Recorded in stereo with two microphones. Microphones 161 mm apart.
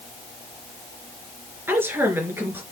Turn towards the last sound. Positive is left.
turn(degrees=-15)  # may be behind; listen again after turning